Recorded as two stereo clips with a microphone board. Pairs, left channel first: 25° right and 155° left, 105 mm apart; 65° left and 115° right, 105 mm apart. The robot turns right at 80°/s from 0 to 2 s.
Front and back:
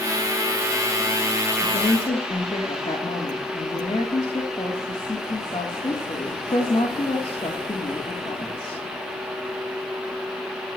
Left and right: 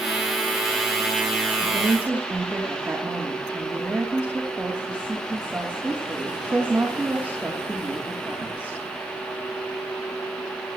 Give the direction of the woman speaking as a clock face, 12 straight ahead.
2 o'clock.